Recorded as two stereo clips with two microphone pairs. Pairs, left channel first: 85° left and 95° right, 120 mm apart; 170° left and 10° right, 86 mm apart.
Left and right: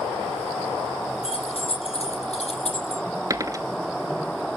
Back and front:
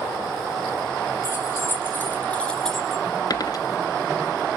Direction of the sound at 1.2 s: 115° left.